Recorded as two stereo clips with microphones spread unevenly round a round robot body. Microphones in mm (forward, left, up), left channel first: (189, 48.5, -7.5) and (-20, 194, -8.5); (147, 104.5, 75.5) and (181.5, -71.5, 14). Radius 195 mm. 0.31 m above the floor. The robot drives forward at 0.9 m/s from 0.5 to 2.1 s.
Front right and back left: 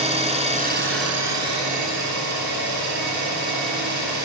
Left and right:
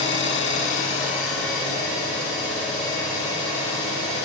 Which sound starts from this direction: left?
An engine running, at 0.0 s.